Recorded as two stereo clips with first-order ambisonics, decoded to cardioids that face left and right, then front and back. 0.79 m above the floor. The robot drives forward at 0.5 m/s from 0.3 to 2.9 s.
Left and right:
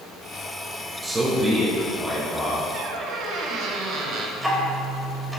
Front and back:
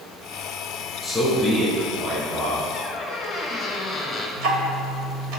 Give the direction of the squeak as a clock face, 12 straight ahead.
2 o'clock.